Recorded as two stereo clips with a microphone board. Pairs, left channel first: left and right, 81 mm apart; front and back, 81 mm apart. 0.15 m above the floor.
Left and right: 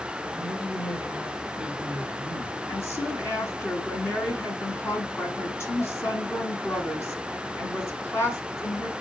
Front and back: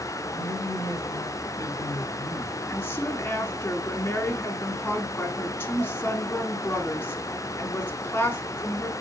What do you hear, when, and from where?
0.3 s a woman speaking: 25° left, 4.5 m; by 2.6 s 60° left, 4 m
2.7 s a woman speaking: 50° left, 2 m